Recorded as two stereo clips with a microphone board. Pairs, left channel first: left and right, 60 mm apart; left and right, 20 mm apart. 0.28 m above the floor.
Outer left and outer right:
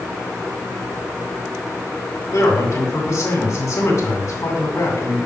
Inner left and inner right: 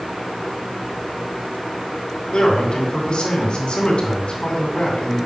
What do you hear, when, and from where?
2.3 s a man speaking: 60° left (ahead or behind), 2.5 m